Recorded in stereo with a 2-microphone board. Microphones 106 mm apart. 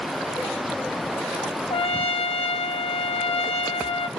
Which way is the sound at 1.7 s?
75° left (ahead or behind).